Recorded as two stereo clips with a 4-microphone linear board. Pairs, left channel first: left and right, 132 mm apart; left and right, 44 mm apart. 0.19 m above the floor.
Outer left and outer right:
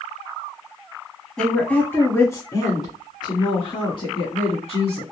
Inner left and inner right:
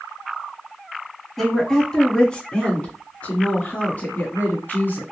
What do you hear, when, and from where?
1.4 s a woman speaking: 5° left (ahead or behind), 1.2 m; by 5.0 s 50° left (ahead or behind), 2.5 m